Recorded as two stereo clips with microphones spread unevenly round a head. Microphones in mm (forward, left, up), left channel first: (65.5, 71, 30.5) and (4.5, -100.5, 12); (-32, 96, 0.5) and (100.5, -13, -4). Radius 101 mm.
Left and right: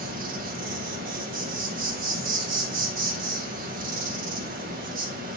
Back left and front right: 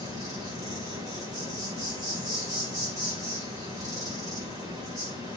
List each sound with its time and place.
0.0 s an insect: 105° right, 1.7 m